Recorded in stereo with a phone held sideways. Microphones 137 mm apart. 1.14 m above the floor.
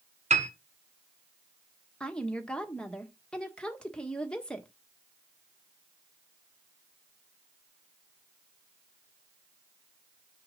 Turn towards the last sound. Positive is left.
turn(degrees=5)  # may be behind; listen again after turning